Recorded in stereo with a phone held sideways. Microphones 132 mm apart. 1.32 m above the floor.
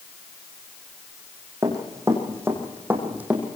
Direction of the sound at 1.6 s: 25° right (ahead or behind).